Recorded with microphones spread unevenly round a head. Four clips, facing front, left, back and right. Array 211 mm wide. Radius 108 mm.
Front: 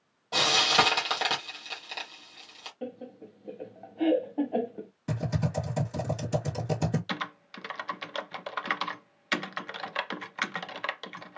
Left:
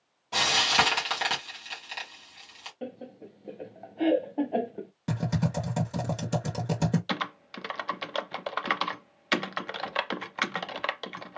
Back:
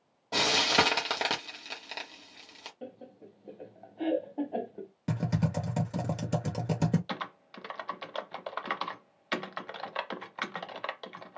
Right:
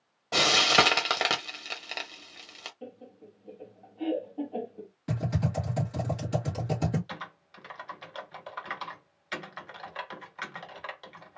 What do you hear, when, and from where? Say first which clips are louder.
0.3 s frying: right 2 dB, front 2 dB; 125° right, 1.5 m
2.8 s laughter: left 8 dB, front 7 dB; 40° left, 0.6 m
5.1 s typing on a keyboard: left 2 dB, even; 140° left, 1.3 m
7.1 s typing on a keyboard: left 9 dB, front 2 dB; 70° left, 0.6 m